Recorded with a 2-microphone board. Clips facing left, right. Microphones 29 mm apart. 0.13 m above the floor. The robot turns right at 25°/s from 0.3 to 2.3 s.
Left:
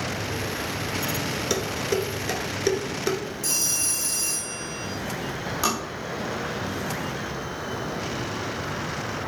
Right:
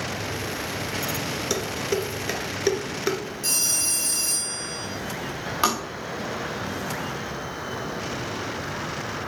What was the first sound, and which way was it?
Dishes clattering, centre (ahead or behind).